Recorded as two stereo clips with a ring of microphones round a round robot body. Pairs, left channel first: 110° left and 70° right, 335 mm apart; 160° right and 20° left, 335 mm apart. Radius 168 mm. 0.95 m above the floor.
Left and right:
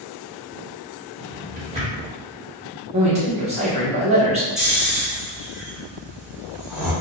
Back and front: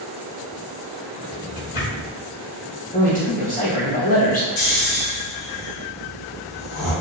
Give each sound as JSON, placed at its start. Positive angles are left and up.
{"t": 1.2, "sound": "a drawer", "azimuth_deg": -135, "distance_m": 0.9}
{"t": 2.9, "sound": "a man speaking", "azimuth_deg": -120, "distance_m": 0.9}
{"t": 4.6, "sound": "snoring", "azimuth_deg": -155, "distance_m": 0.8}